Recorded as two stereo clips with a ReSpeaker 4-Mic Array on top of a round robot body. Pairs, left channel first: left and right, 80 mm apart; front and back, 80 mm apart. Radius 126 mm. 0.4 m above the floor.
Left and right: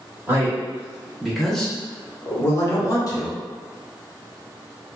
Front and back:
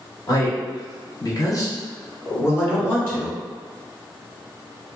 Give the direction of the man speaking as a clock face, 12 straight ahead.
1 o'clock.